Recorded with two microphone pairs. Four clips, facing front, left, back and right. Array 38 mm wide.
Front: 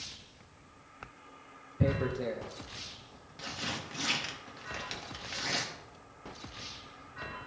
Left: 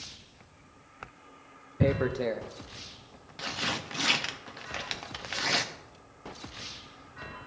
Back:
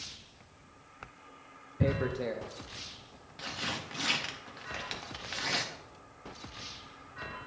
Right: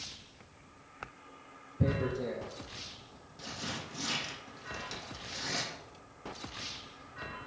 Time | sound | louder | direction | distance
1.8 | tearing paper | left 5 dB, even | 95° left | 0.6 m